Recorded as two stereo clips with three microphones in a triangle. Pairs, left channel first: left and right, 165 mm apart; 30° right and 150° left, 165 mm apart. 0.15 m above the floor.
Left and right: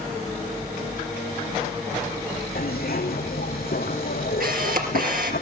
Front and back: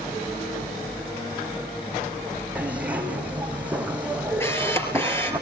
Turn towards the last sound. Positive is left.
turn(degrees=-105)